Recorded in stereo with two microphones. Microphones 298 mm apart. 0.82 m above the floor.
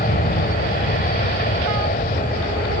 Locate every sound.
0.0 s an aircraft: 30° left (ahead or behind)